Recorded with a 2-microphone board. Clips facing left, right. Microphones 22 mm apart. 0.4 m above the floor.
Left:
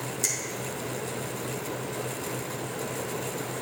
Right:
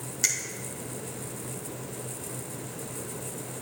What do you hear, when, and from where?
0.2 s a finger snap: 40° right (ahead or behind), 1.0 m